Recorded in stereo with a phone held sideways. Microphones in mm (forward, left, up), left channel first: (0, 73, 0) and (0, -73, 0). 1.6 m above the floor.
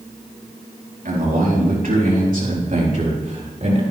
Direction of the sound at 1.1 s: 75° right (ahead or behind).